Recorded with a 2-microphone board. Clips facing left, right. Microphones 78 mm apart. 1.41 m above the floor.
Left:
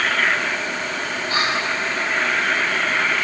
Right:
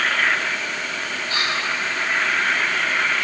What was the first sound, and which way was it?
Whispering, 35° left (ahead or behind).